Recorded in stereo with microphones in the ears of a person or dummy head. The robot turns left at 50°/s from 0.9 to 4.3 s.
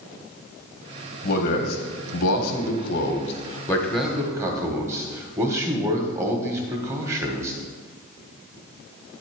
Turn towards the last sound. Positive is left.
turn(degrees=-20)